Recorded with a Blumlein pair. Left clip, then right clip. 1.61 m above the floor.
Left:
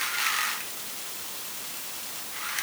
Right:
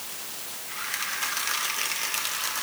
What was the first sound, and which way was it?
Only background noise.